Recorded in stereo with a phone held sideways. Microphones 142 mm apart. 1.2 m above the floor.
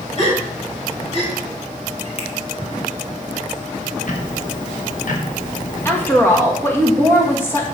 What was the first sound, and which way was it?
A gasp, 45° left (ahead or behind).